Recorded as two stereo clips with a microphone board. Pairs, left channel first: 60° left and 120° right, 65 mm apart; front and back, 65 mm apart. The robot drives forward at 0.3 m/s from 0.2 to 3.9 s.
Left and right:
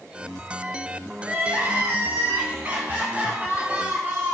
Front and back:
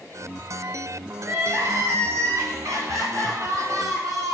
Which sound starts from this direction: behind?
Crying, at 1.2 s.